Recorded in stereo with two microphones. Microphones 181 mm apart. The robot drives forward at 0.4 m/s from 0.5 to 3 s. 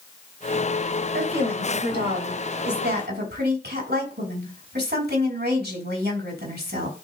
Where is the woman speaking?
75° right (ahead or behind), 3.5 m; by 7.0 s 70° right (ahead or behind), 3.5 m.